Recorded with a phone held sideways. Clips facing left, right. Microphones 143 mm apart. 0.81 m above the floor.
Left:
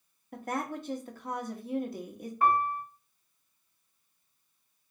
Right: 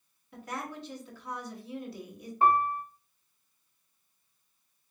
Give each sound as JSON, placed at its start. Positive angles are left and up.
{"t": 0.3, "sound": "a woman speaking", "side_deg": 50, "distance_m": 0.9}
{"t": 2.4, "sound": "a piano", "side_deg": -25, "distance_m": 0.7}